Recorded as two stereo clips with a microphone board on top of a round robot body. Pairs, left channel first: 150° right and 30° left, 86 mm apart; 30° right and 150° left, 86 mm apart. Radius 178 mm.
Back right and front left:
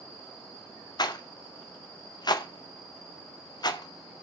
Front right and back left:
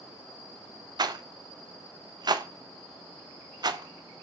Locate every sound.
1.0 s a rattle: straight behind, 1.7 m